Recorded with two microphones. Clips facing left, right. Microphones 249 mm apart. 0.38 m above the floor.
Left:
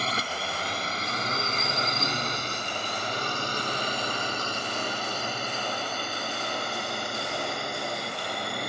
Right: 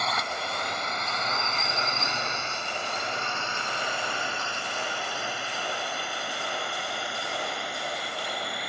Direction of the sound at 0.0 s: 35° left (ahead or behind).